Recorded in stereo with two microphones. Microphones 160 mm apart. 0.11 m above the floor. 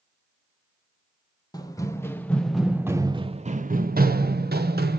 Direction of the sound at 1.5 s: 25° left (ahead or behind).